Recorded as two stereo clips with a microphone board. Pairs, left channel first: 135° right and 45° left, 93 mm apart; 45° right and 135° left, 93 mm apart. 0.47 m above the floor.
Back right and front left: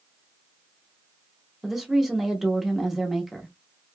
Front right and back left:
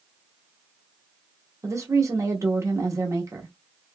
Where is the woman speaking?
130° left, 0.8 m.